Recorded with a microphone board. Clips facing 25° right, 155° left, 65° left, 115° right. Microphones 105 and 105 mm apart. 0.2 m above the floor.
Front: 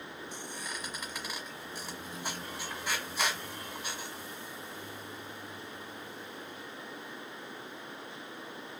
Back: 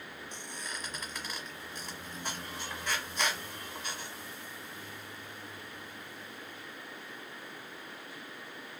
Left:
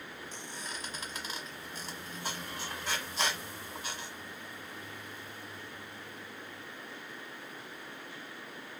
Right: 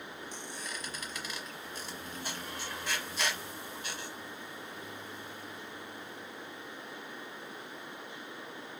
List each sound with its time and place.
0.3 s a squeak: 55° left, 1.1 m